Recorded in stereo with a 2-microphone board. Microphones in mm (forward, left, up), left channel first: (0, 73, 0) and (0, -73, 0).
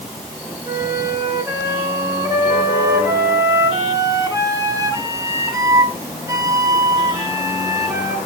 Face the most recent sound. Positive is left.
turn(degrees=-25)  # may be behind; listen again after turning